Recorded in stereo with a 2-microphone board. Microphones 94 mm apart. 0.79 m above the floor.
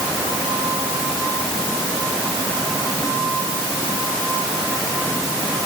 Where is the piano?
I don't hear a piano.